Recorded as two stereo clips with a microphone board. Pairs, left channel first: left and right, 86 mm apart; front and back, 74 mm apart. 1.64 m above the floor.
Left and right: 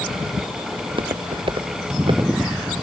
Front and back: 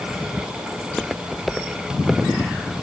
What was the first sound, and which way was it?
Footsteps, 85° right.